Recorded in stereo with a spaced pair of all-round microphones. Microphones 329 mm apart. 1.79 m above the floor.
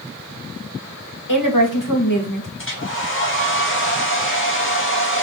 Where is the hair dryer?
40° left (ahead or behind), 2 m.